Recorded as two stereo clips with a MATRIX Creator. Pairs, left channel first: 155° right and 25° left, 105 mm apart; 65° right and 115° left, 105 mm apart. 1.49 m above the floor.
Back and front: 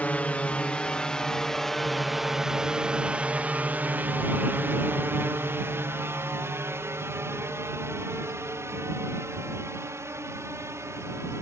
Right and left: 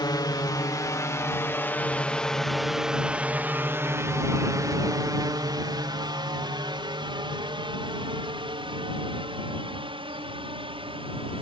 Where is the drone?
90° right; by 11.4 s 85° left.